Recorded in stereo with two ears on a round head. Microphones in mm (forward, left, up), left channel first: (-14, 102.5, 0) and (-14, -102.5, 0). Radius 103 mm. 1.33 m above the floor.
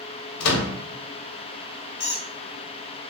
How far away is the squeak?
About 1.0 m.